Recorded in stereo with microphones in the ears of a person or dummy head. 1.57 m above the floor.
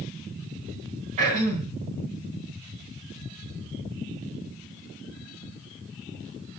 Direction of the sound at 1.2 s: 40° right (ahead or behind).